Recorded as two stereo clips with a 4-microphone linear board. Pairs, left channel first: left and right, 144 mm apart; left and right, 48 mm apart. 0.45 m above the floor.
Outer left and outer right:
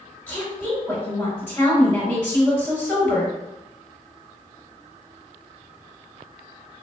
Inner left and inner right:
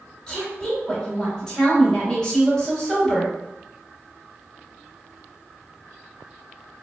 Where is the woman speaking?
15° left (ahead or behind), 1.7 m.